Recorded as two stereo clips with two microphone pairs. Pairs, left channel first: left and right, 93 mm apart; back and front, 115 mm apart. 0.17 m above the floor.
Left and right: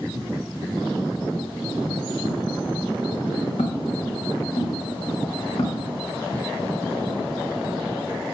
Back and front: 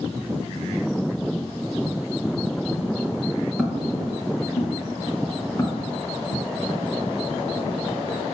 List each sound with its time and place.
3.6 s footsteps: 90° left, 4.5 m; by 6.4 s 115° left, 5 m